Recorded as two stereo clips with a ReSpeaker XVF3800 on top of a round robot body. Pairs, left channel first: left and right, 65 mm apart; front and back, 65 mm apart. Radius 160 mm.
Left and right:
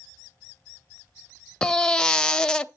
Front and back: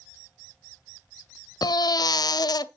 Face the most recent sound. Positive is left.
turn(degrees=10)